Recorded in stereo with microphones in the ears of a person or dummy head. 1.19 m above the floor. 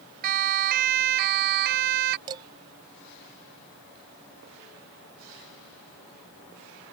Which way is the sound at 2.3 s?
20° right (ahead or behind).